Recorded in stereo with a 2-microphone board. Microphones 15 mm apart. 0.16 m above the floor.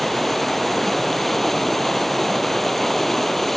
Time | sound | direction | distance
0.0 | running water | 10° left (ahead or behind) | ?